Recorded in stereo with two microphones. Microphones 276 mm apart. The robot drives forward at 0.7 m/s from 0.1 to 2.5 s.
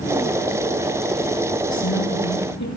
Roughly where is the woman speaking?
Left.